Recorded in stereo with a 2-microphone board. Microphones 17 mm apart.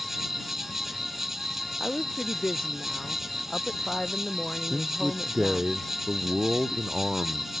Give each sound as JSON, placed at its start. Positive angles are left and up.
{"t": 0.0, "sound": "an insect", "side_deg": -20}
{"t": 1.8, "sound": "a woman speaking", "side_deg": 45}
{"t": 4.6, "sound": "a man speaking", "side_deg": -50}